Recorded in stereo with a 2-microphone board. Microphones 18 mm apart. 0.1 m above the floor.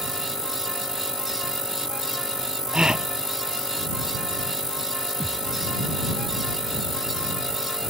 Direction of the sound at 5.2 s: 45° left (ahead or behind).